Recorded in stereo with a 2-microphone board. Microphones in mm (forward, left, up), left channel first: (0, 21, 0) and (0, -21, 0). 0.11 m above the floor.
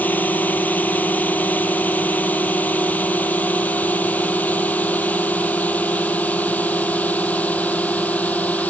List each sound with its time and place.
0.0 s a drone: 40° left (ahead or behind); by 8.7 s 35° left (ahead or behind)